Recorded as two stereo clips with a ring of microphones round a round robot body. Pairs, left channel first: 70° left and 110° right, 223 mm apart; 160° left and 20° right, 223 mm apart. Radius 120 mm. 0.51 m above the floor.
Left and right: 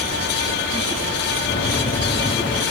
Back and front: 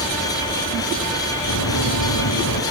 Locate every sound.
1.5 s running footsteps: 130° left, 3 m; by 2.6 s 145° left, 3 m